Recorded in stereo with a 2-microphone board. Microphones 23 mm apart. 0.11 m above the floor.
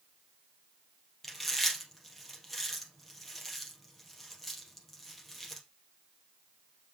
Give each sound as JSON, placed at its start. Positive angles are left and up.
{"t": 1.2, "sound": "chewing", "side_deg": 5, "distance_m": 3.0}